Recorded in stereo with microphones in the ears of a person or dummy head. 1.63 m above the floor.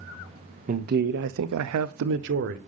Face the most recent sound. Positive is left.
turn(degrees=-50)  # may be behind; listen again after turning